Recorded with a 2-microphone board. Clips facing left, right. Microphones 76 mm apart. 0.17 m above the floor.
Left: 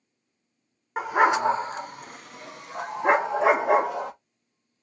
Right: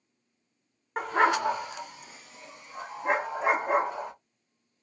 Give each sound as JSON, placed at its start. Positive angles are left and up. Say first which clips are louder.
{"t": 1.0, "sound": "a dog barking", "louder": "left 3 dB", "side_deg": 5, "distance_m": 0.7}